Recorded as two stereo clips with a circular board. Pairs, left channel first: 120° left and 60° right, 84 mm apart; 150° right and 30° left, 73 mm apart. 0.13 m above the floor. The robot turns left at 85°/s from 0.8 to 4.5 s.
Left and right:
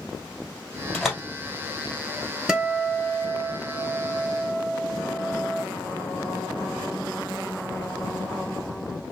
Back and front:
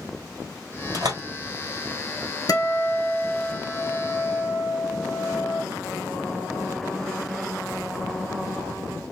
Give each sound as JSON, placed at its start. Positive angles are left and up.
{"t": 0.9, "sound": "a door slam", "azimuth_deg": 45, "distance_m": 1.9}
{"t": 2.5, "sound": "a guitar", "azimuth_deg": -140, "distance_m": 1.0}